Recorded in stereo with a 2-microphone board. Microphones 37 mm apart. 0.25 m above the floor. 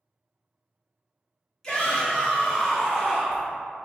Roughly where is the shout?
Centre.